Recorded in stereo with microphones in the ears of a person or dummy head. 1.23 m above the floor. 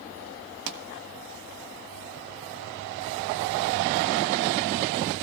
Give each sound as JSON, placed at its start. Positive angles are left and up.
{"t": 0.7, "sound": "a pop", "side_deg": -65, "distance_m": 1.4}